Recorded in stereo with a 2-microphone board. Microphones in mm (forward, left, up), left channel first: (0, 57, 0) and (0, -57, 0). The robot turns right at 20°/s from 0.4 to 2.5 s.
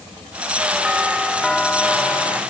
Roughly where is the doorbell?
Ahead.